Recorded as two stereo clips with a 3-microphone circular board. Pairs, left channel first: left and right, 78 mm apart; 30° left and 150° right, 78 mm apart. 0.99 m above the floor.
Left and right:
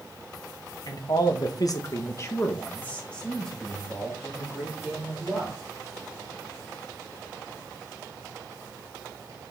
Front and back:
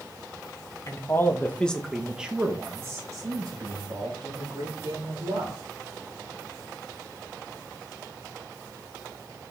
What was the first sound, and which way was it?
A man speaking, 70° left.